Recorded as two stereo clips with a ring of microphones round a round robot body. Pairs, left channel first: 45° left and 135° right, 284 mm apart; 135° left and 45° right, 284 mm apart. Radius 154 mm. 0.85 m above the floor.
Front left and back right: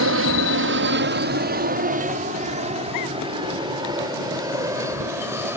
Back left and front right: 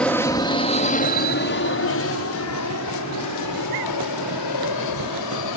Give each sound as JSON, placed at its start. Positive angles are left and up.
{"t": 0.0, "sound": "an aircraft", "azimuth_deg": -140}